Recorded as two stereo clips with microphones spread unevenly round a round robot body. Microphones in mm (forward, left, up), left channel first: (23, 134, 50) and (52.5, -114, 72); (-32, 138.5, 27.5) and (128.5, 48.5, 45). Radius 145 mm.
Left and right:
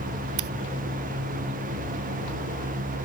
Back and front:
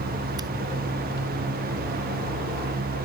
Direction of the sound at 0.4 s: 105° right.